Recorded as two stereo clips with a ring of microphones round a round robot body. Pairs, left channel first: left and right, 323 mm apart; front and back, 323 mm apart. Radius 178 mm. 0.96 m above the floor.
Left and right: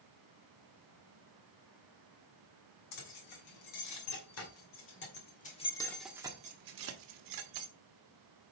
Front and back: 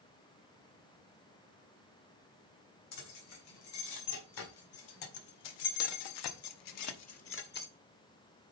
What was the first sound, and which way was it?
Keys jangling, 50° left.